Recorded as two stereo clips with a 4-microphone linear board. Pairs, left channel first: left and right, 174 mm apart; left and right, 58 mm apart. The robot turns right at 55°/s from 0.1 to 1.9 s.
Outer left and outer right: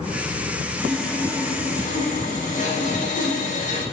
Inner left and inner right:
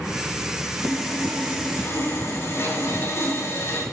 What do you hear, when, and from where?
0.8 s sawing: 10° right, 4 m; by 3.8 s 50° left, 4 m